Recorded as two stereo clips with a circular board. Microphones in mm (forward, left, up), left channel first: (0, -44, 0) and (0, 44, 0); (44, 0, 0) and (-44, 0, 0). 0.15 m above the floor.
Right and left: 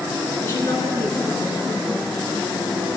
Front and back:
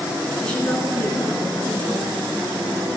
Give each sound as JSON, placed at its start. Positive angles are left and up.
{"t": 0.4, "sound": "a woman speaking", "azimuth_deg": -70, "distance_m": 1.6}